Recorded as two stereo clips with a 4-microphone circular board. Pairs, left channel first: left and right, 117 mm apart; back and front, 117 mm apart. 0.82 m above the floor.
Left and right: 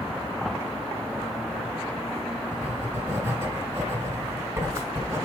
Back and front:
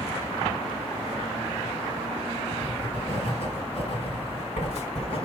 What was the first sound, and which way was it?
Writing, 155° right.